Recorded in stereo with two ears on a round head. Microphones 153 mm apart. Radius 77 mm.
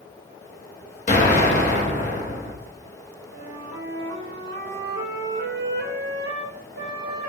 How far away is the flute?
About 1.8 m.